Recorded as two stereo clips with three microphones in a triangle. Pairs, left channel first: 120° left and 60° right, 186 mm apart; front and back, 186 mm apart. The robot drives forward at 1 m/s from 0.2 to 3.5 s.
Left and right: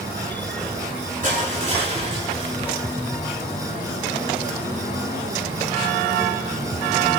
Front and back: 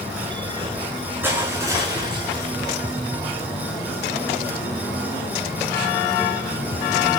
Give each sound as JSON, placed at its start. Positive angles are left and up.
{"t": 1.2, "sound": "crushing", "azimuth_deg": -100, "distance_m": 4.0}